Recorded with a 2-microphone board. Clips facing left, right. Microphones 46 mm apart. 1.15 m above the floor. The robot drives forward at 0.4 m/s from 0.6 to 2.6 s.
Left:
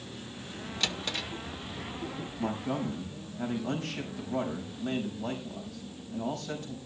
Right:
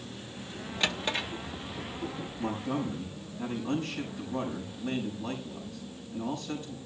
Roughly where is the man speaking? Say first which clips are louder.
Even; left.